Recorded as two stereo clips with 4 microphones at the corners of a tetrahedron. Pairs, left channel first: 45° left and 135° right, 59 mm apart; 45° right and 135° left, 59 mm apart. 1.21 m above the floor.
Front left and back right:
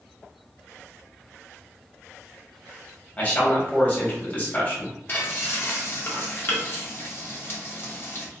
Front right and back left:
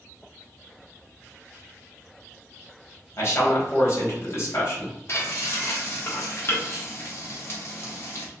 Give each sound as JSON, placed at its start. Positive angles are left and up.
{"t": 3.2, "sound": "a man speaking", "azimuth_deg": -10, "distance_m": 1.5}
{"t": 5.1, "sound": "frying", "azimuth_deg": 0, "distance_m": 1.0}